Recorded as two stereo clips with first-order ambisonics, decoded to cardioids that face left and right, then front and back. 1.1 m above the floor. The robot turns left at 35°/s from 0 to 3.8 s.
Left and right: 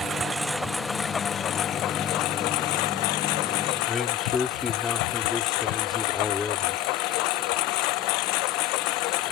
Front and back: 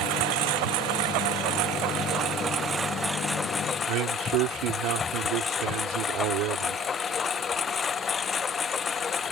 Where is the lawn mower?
155° right; by 9.3 s 70° left.